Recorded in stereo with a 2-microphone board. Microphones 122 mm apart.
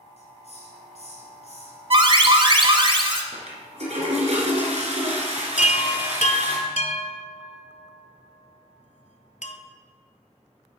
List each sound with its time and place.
0.2 s a hiss: 65° left (ahead or behind), 1.8 m
1.9 s an alarm: 45° right (ahead or behind), 0.9 m
3.3 s a toilet flushing: 65° right (ahead or behind), 2 m
5.6 s a chime: 80° left, 0.7 m